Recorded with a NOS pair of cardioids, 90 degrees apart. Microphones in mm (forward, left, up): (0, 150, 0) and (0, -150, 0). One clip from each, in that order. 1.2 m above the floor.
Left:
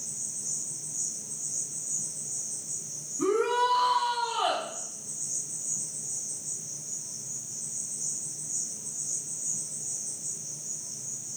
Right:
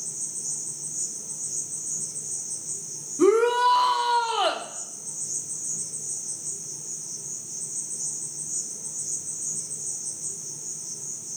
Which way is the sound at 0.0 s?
50° right.